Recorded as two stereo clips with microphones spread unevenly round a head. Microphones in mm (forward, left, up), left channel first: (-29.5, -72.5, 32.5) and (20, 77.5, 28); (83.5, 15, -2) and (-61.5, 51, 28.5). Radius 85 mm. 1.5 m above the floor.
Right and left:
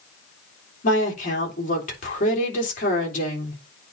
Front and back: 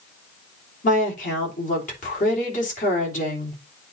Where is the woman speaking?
65° right, 3 m.